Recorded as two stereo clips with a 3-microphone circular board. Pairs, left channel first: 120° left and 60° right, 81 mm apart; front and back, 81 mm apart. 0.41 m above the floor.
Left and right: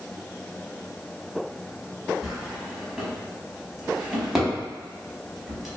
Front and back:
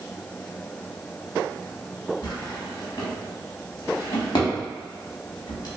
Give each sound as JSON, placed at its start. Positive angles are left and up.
{"t": 2.2, "sound": "a drawer", "azimuth_deg": 25, "distance_m": 0.8}